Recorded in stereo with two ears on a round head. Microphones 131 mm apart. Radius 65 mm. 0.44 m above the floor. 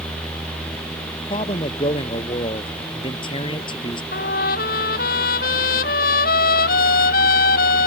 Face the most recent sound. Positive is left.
turn(degrees=65)  # may be behind; listen again after turning